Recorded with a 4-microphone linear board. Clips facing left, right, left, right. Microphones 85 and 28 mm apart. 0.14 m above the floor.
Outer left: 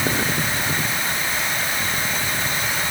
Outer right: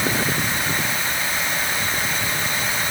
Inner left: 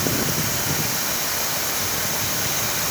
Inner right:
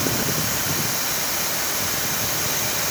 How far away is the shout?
No shout in this recording.